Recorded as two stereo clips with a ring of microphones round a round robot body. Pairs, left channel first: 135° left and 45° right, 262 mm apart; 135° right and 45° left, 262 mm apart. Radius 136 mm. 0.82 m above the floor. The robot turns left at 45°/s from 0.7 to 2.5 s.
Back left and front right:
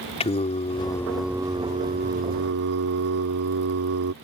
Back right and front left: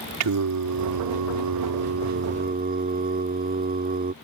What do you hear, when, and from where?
0.2 s singing: 65° left; by 4.1 s 15° right